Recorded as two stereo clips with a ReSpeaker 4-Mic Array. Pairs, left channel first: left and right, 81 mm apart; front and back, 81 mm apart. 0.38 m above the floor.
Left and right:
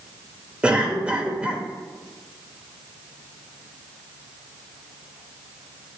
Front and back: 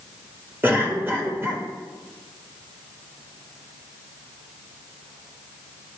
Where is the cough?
150° right, 1.1 m.